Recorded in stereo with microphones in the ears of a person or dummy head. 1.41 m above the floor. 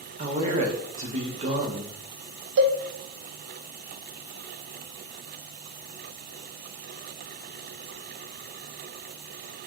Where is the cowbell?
65° right (ahead or behind), 0.5 m.